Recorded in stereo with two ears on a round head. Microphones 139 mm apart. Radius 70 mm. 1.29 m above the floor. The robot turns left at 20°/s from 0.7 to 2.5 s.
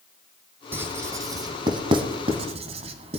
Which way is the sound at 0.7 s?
15° right (ahead or behind).